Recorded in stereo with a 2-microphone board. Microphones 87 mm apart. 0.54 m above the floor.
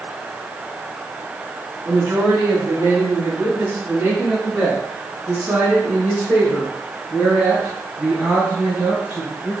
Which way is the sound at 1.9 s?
30° right (ahead or behind).